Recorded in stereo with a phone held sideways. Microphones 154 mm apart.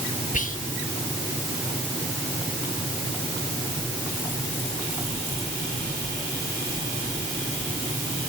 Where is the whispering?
60° left (ahead or behind), 1.8 m.